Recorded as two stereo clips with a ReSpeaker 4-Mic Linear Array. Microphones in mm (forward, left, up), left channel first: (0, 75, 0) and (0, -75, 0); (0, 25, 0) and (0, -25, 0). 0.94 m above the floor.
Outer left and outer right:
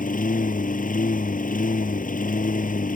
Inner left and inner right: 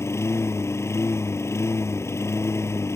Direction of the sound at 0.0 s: 70° left (ahead or behind).